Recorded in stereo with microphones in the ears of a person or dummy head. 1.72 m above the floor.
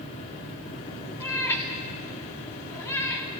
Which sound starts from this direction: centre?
A cat meowing, at 1.2 s.